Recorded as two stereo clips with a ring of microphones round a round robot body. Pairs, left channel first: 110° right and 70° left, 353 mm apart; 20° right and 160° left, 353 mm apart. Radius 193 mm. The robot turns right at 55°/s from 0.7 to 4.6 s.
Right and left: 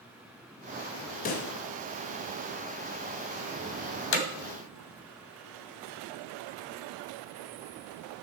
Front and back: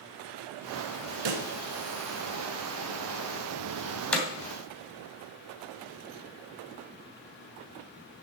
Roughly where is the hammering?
Right.